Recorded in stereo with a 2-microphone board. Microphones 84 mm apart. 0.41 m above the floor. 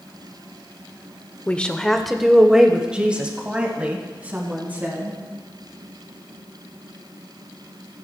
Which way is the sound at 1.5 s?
15° left (ahead or behind).